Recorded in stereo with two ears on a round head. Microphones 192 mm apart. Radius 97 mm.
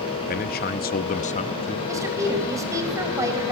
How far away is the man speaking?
About 0.7 m.